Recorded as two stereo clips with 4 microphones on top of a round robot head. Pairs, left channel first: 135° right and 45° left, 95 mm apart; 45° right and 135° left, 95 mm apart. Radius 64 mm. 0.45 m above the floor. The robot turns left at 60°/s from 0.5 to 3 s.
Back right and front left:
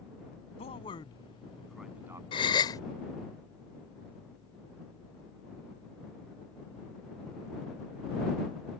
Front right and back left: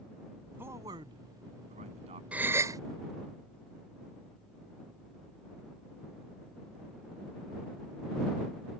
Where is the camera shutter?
No camera shutter in this recording.